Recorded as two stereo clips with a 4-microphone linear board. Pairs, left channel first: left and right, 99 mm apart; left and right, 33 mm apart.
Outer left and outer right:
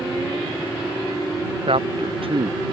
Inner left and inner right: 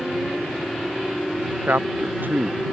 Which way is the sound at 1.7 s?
70° right (ahead or behind).